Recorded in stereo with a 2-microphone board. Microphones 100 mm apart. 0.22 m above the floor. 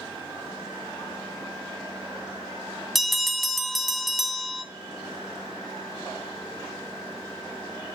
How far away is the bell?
About 0.6 m.